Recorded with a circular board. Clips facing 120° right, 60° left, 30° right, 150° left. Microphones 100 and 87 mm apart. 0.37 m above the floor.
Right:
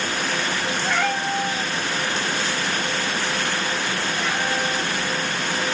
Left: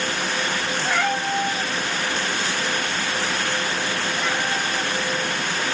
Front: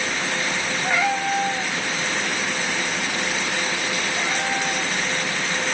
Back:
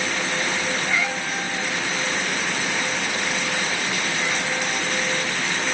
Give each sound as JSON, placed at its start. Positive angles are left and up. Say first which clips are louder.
{"t": 0.8, "sound": "a cat meowing", "louder": "left 1 dB, front 4 dB", "azimuth_deg": -25, "distance_m": 3.0}